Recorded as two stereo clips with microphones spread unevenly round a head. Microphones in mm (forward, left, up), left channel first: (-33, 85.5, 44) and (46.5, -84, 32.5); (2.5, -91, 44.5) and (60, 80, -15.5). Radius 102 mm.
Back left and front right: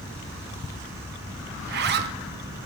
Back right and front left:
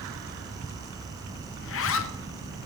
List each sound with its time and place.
1.6 s a zipper: 90° right, 0.6 m